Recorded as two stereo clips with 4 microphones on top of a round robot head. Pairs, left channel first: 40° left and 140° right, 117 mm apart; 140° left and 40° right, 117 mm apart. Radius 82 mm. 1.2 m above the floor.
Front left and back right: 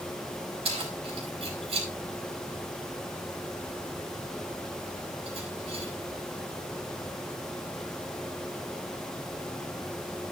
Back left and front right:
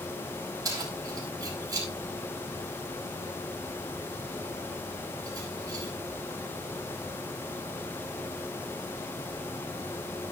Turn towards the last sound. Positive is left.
turn(degrees=-100)